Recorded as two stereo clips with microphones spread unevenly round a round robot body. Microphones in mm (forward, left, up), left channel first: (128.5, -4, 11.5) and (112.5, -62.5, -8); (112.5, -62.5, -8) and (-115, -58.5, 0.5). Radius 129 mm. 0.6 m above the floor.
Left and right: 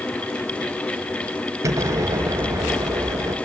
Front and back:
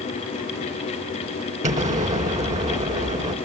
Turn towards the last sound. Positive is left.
turn(degrees=-125)